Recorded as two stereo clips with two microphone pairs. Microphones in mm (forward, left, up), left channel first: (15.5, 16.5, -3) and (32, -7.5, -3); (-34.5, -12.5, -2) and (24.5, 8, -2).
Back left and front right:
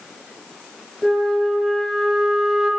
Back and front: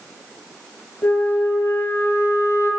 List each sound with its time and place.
1.0 s a flute: 155° right, 1.3 m